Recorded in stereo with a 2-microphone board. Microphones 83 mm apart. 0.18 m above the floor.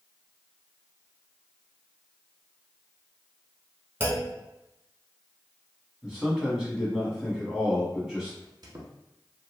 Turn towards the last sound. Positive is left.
turn(degrees=-55)  # may be behind; listen again after turning